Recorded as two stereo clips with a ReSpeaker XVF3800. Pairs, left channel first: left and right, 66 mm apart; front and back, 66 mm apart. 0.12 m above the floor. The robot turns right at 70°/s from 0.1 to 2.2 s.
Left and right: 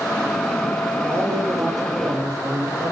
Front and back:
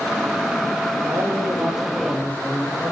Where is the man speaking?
145° right, 4 m; by 2.9 s 60° right, 4 m.